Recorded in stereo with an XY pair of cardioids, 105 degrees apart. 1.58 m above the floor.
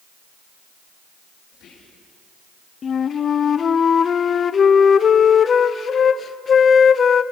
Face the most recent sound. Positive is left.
turn(degrees=45)